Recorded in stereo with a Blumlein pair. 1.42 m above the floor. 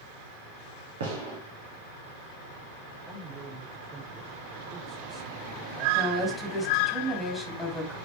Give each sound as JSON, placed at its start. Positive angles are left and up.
{"t": 1.0, "sound": "a gunshot", "azimuth_deg": -60, "distance_m": 3.5}
{"t": 3.1, "sound": "a man speaking", "azimuth_deg": -20, "distance_m": 6.0}
{"t": 5.9, "sound": "a woman speaking", "azimuth_deg": 0, "distance_m": 3.5}